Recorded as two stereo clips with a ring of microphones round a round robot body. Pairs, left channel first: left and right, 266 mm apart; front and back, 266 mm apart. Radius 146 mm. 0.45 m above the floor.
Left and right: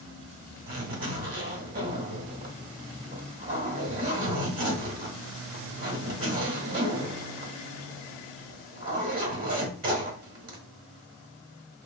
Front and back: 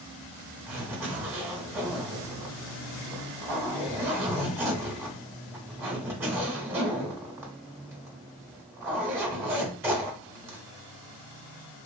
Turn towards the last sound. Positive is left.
turn(degrees=-105)